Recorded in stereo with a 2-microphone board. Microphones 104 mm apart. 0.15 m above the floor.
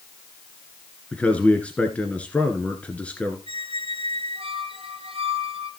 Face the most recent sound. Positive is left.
turn(degrees=-65)  # may be behind; listen again after turning